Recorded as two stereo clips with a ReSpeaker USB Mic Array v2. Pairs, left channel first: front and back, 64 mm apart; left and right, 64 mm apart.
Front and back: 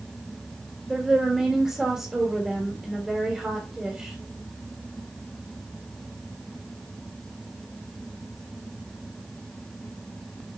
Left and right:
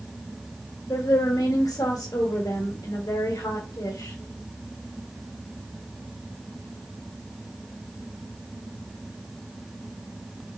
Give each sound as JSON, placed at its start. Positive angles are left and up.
{"t": 0.9, "sound": "a woman speaking", "azimuth_deg": 100, "distance_m": 2.0}